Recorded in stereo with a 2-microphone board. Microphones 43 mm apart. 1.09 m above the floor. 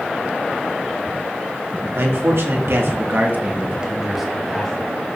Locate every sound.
1.9 s a man speaking: 80° right, 3 m; by 4.9 s 15° left (ahead or behind), 3 m